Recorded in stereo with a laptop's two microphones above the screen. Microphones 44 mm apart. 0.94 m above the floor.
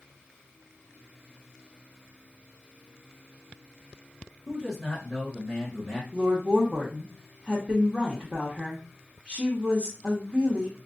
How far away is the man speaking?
About 0.9 m.